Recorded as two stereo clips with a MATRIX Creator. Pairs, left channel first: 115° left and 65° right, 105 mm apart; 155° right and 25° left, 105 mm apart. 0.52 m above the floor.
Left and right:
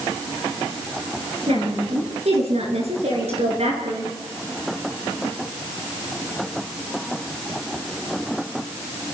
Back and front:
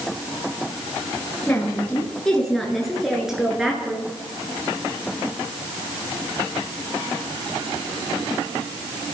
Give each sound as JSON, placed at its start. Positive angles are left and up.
{"t": 1.5, "sound": "a woman speaking", "azimuth_deg": -80, "distance_m": 6.5}